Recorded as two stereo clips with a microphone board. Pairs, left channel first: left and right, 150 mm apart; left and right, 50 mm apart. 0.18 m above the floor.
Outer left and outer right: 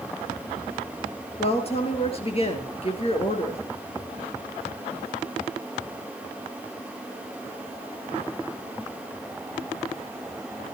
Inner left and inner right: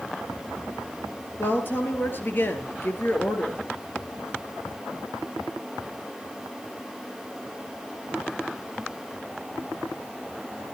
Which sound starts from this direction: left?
A woman speaking, at 1.4 s.